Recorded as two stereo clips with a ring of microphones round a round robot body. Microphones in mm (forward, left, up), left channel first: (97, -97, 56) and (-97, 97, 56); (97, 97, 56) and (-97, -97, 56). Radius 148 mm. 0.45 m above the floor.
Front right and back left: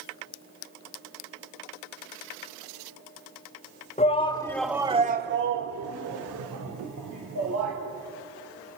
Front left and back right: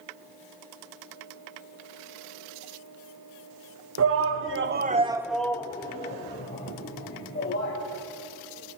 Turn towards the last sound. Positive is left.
turn(degrees=100)